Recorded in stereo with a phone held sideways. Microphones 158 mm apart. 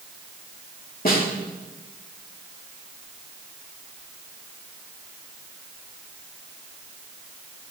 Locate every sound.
1.1 s a snare drum: 65° left (ahead or behind), 3 m